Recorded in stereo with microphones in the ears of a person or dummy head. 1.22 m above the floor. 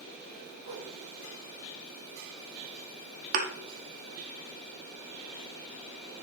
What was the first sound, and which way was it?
A whoosh, 45° right (ahead or behind).